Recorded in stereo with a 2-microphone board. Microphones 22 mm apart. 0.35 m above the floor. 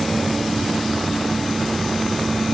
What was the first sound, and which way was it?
Only background noise.